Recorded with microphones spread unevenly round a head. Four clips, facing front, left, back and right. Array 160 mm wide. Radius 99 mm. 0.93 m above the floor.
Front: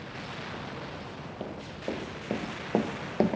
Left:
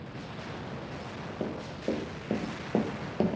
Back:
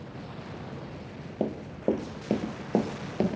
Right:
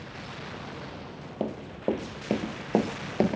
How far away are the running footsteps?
About 1.2 m.